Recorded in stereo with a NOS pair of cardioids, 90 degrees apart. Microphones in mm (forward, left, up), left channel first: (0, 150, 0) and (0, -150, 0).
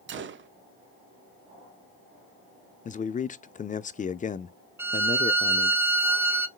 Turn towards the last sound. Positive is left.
turn(degrees=-5)